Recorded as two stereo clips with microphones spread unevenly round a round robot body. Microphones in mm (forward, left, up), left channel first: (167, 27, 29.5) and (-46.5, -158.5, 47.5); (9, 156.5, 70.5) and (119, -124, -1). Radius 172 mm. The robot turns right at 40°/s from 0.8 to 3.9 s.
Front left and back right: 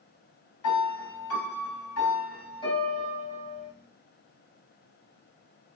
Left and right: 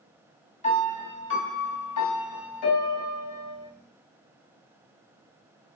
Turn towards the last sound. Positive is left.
turn(degrees=165)